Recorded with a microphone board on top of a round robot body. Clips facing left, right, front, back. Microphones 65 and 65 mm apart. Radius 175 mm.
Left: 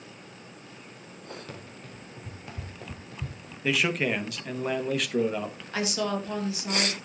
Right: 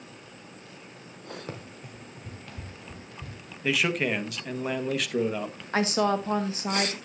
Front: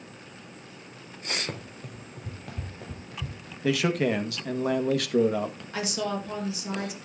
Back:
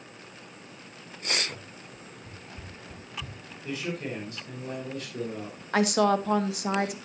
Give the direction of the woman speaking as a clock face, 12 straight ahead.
5 o'clock.